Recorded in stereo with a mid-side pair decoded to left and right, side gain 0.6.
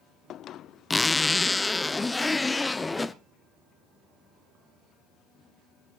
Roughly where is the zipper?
Ahead.